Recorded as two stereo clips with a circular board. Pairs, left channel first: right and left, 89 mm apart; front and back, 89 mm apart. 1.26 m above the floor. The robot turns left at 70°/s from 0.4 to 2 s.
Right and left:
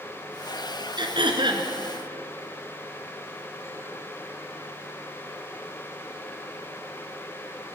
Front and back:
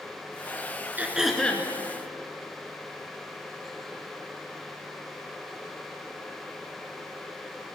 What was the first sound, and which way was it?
Throat clearing, 110° left.